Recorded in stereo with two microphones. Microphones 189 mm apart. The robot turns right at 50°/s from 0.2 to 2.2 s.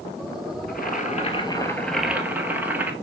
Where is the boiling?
115° left, 1.1 m; by 2.9 s 170° right, 1.1 m.